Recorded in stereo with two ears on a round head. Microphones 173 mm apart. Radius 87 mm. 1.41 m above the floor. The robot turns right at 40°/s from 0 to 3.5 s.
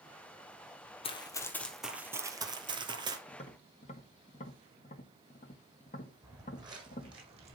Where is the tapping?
25° left (ahead or behind), 1.9 m; by 7.2 s 35° left (ahead or behind), 1.9 m.